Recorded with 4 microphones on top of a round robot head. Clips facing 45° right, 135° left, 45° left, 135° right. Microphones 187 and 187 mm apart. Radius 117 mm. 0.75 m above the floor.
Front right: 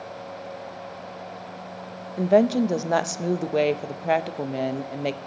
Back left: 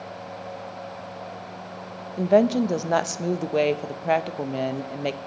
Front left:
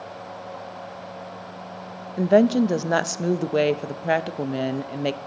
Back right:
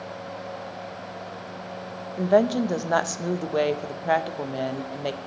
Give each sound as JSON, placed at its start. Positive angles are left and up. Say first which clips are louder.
{"t": 2.2, "sound": "a woman speaking", "louder": "even, front left 3 dB", "azimuth_deg": 40, "distance_m": 0.6}